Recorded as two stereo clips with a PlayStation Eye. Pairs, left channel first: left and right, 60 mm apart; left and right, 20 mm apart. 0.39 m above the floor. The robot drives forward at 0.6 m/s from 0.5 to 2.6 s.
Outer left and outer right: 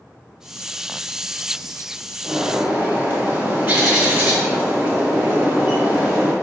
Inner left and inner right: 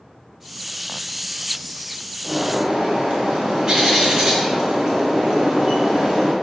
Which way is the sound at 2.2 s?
35° right (ahead or behind).